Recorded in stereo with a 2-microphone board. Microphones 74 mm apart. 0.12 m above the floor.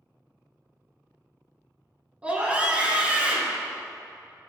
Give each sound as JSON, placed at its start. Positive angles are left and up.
{"t": 2.2, "sound": "a scream", "side_deg": -20, "distance_m": 1.5}